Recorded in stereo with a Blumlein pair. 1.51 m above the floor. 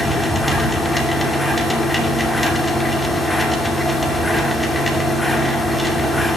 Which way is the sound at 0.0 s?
5° left.